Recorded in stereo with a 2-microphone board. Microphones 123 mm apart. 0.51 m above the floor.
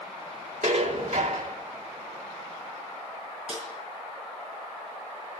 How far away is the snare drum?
About 5 m.